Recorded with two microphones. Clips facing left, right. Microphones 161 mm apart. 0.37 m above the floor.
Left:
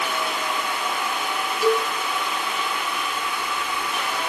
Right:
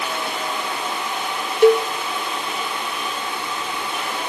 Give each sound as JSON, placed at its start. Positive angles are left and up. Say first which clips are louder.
{"t": 1.6, "sound": "a cowbell", "louder": "right 8 dB", "side_deg": -65, "distance_m": 0.7}